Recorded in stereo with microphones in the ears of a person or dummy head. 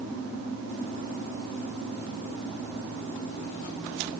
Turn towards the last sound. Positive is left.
No sound to turn to.